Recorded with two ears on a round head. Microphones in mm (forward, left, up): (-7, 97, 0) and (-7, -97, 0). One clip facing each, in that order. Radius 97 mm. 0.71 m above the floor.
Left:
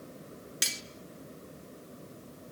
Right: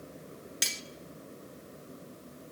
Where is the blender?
No blender in this recording.